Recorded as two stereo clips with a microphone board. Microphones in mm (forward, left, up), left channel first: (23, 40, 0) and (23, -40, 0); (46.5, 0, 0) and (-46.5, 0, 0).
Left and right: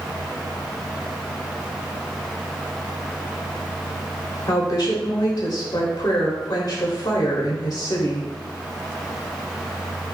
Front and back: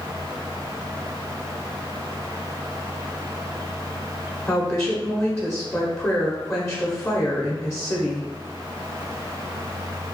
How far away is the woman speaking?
About 1.1 m.